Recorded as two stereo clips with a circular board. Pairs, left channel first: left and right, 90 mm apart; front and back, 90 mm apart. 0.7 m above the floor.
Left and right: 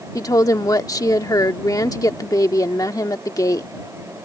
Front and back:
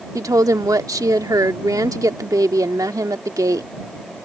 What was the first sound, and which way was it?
A woman speaking, 135° left.